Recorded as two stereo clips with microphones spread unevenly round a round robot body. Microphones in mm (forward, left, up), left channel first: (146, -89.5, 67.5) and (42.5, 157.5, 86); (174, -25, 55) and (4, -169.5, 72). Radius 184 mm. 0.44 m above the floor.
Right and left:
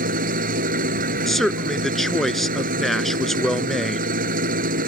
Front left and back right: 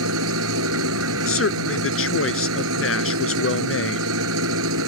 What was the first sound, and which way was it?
An engine running, straight behind.